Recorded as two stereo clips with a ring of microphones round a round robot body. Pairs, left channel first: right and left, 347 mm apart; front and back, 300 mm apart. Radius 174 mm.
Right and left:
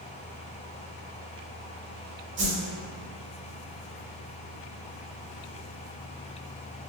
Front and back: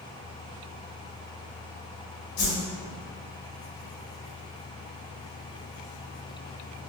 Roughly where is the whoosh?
Ahead left.